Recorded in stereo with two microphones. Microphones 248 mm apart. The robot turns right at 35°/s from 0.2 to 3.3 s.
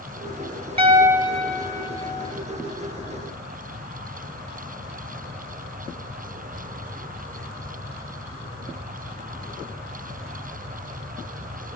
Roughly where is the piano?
Ahead.